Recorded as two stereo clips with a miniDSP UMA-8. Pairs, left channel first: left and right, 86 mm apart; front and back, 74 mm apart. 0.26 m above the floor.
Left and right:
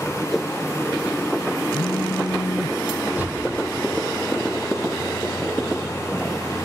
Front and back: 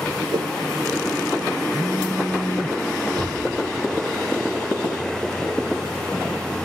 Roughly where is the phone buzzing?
Left.